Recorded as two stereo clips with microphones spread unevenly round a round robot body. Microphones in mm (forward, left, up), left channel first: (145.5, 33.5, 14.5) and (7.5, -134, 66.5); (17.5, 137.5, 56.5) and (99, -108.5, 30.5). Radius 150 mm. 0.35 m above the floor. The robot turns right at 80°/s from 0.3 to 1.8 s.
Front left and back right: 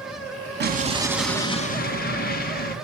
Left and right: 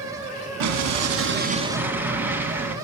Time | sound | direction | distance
0.6 | an explosion | 85° right | 2.5 m